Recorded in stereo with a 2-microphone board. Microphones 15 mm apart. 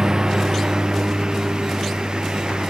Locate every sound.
0.0 s a lawn mower: 45° right (ahead or behind); by 2.7 s 60° right (ahead or behind)